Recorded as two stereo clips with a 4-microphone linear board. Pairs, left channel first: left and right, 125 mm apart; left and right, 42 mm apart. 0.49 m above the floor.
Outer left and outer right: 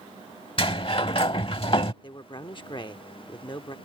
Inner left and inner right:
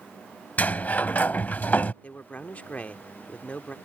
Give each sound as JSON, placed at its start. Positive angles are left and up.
{"t": 0.6, "sound": "a sliding door", "side_deg": 45}
{"t": 2.0, "sound": "a man speaking", "side_deg": 40}